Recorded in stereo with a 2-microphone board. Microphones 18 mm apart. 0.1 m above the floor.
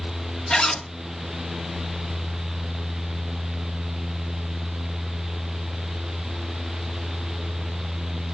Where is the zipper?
55° left (ahead or behind), 4 m.